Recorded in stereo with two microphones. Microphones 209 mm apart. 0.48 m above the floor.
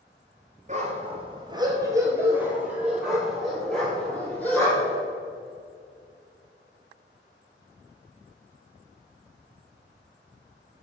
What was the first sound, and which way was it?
A dog barking, 35° right (ahead or behind).